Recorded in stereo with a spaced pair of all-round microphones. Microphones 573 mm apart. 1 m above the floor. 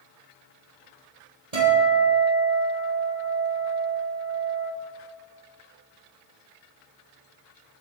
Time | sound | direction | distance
1.5 | a guitar | 80° right | 7.5 m